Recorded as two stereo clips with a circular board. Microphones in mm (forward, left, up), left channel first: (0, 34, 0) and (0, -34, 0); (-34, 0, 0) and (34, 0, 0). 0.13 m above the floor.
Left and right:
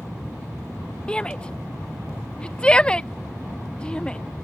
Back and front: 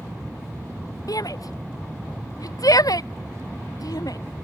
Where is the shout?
165° left.